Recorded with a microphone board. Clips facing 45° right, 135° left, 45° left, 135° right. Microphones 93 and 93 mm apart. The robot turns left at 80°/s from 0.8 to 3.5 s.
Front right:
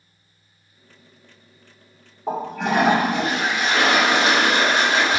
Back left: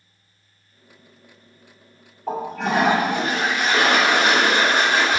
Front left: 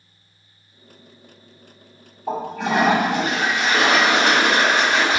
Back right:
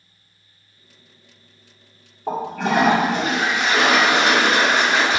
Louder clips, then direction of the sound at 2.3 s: Even, back right 1 dB; 110° right.